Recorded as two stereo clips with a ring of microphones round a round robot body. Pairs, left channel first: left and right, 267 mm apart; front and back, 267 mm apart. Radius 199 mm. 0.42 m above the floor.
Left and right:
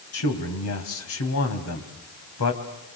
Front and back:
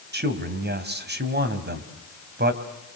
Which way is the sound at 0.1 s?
130° left.